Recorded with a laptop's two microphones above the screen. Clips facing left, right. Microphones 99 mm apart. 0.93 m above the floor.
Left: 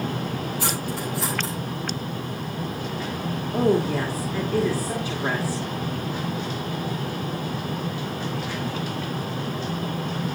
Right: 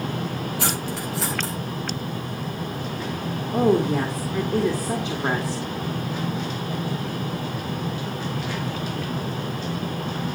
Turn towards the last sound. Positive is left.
turn(degrees=-20)  # may be behind; listen again after turning